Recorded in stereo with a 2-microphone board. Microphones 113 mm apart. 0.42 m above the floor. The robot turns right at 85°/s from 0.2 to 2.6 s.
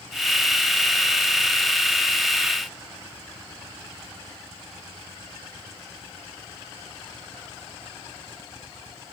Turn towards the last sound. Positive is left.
No sound to turn to.